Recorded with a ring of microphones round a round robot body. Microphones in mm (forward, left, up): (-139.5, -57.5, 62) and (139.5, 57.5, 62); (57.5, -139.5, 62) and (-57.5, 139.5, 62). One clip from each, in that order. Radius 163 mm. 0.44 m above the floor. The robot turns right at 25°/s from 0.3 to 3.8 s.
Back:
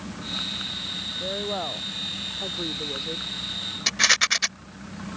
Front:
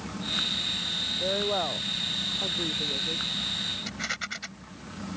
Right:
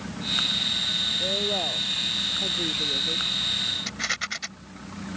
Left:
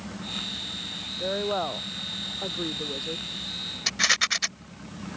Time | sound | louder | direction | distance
1.2 | a woman speaking | front 1 dB, right 3 dB | 90° left | ?
3.9 | a rattle | back 13 dB, left 6 dB | 170° left | ?